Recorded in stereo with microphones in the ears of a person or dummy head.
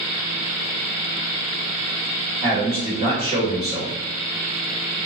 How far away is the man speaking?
About 1.3 m.